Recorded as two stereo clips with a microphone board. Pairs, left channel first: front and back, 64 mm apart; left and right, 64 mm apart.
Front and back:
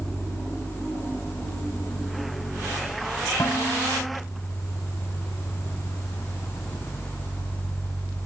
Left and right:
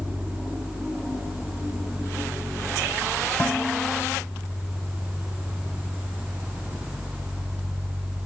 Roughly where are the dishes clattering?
Ahead left.